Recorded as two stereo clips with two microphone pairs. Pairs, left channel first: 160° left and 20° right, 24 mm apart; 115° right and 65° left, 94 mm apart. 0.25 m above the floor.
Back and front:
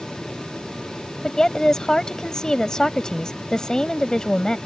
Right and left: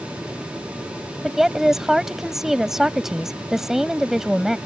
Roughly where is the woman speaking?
Behind left.